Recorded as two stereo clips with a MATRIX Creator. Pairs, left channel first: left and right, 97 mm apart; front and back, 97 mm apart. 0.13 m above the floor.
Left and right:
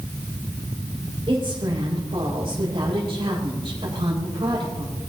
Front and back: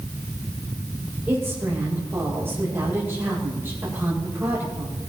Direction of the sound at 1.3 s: 115° right.